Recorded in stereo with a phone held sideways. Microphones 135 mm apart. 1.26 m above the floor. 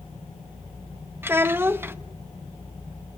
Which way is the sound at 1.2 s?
15° right (ahead or behind).